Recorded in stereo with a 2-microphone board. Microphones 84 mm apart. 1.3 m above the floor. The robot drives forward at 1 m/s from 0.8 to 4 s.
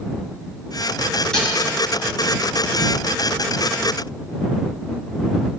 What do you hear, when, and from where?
1.3 s dishes clattering: 5° left (ahead or behind), 7 m